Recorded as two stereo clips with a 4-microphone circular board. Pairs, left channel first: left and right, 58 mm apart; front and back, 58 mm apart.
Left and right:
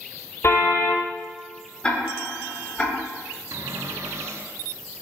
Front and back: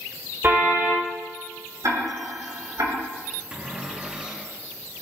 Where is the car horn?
130° left, 7.5 m.